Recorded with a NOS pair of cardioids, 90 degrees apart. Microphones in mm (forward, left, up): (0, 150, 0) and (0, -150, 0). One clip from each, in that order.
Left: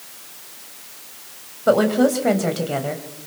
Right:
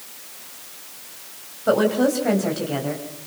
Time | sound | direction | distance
1.7 | a woman speaking | 30° left | 4.5 m